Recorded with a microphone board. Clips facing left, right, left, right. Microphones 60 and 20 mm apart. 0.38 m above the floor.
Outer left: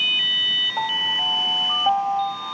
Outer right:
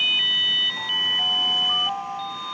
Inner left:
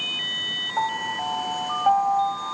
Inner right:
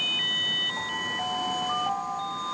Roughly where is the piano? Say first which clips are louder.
Outer left 2 dB, inner left 4 dB; left.